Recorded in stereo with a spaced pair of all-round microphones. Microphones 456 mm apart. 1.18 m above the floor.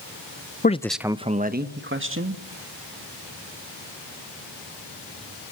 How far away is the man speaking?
About 0.6 m.